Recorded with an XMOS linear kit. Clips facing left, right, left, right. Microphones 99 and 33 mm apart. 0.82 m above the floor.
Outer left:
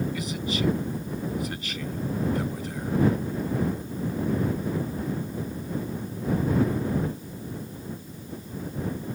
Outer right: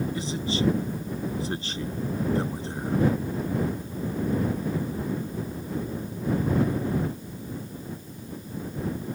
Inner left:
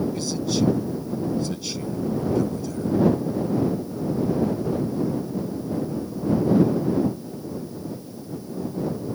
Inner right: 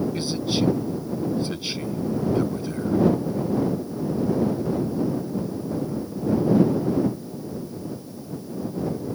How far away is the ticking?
I don't hear ticking.